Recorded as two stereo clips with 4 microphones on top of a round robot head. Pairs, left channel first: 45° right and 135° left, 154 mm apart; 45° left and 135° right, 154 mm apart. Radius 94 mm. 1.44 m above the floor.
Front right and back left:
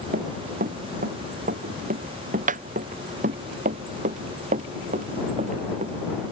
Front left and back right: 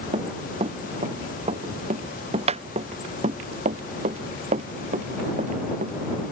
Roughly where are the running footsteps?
Behind.